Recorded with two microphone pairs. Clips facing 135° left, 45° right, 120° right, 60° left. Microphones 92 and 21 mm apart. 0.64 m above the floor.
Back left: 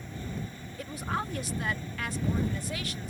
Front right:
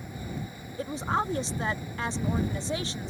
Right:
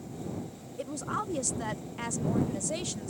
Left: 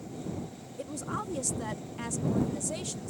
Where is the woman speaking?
55° right.